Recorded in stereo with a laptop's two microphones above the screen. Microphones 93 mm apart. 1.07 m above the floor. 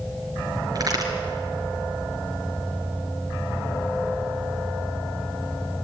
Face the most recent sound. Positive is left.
turn(degrees=-40)  # may be behind; listen again after turning